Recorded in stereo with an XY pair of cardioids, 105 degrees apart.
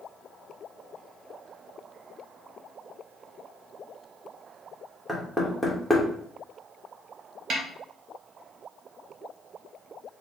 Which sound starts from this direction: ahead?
Knocking, at 5.1 s.